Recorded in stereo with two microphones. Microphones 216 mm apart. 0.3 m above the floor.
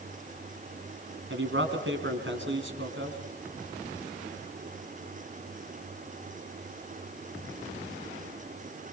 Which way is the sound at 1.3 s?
65° right (ahead or behind).